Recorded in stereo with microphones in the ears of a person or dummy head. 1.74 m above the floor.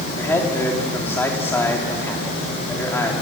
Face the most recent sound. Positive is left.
turn(degrees=15)  # may be behind; listen again after turning